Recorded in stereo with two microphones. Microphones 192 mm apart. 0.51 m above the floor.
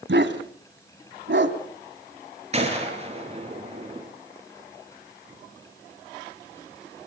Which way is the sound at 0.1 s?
85° right.